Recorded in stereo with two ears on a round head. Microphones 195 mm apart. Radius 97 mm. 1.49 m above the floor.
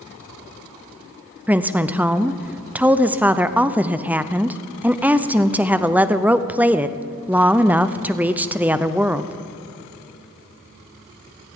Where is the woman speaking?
10° right (ahead or behind), 0.5 m.